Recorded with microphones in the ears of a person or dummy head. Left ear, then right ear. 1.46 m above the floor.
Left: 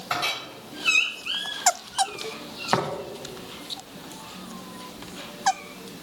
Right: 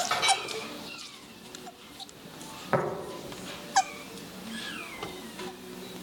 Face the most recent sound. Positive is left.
turn(degrees=15)  # may be behind; listen again after turning